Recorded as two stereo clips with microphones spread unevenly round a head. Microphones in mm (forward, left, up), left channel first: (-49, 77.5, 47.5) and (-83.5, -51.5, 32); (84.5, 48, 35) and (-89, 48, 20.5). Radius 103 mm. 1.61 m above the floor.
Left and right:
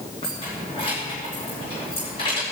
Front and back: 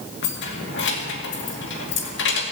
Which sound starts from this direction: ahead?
Keys jangling, at 0.2 s.